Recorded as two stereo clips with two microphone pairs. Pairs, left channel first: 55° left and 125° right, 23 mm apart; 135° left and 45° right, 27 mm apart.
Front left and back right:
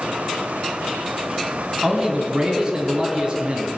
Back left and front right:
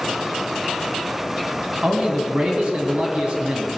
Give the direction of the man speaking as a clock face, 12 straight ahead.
3 o'clock.